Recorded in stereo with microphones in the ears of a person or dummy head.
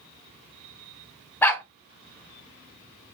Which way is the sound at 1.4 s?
15° left (ahead or behind).